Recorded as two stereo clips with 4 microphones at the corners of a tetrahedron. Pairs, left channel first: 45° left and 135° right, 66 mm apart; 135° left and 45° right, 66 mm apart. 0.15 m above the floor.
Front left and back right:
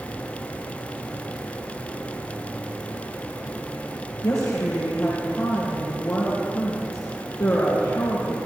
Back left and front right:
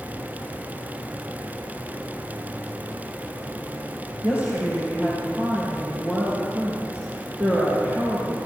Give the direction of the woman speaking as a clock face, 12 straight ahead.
11 o'clock.